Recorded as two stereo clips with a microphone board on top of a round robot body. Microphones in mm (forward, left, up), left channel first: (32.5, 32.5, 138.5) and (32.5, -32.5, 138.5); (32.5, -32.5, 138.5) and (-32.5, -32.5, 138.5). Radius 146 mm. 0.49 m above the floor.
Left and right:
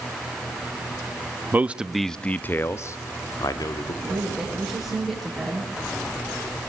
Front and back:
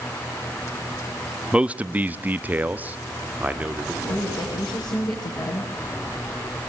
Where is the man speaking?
120° right, 1.0 m; by 3.9 s 110° left, 2 m.